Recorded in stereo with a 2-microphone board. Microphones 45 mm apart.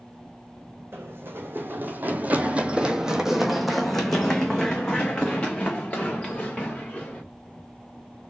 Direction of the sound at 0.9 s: 65° right (ahead or behind).